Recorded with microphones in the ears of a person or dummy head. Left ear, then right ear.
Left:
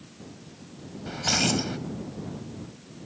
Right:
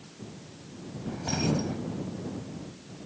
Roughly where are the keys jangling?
Left.